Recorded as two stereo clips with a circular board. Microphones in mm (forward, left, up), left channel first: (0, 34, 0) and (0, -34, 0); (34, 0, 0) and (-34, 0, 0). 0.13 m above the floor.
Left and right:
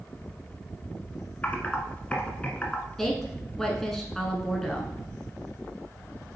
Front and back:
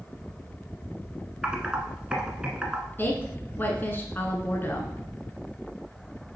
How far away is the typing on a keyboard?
About 1.2 m.